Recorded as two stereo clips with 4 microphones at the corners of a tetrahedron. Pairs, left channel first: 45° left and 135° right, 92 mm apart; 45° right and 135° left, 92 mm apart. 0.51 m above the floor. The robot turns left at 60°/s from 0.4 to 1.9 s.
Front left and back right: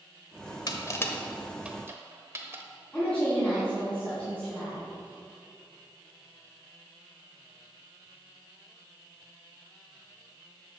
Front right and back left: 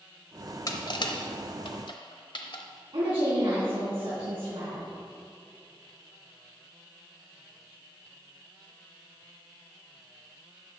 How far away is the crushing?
About 1.1 m.